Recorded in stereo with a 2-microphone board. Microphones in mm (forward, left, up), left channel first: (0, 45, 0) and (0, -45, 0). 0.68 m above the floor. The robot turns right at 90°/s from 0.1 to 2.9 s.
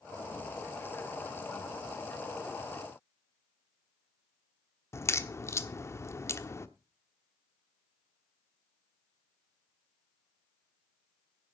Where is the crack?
35° left (ahead or behind), 0.9 m.